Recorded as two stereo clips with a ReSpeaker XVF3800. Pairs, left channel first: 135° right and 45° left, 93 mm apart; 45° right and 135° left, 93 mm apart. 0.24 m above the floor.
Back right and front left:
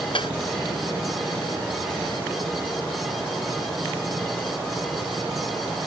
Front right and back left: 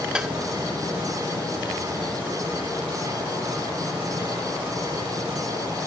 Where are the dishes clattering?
145° right.